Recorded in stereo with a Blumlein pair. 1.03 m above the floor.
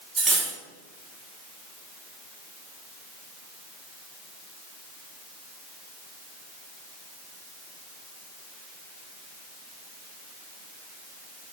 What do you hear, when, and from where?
0.2 s cutlery clinking: 15° right, 1.2 m